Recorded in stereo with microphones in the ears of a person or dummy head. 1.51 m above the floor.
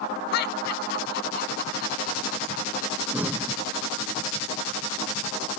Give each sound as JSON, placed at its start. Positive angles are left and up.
{"t": 0.3, "sound": "laughter", "side_deg": 65}
{"t": 3.1, "sound": "breathing", "side_deg": -10}